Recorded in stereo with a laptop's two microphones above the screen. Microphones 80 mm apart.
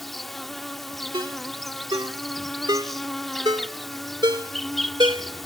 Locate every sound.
0.0 s an insect: centre (ahead or behind)
1.1 s a ringtone: 65° right (ahead or behind)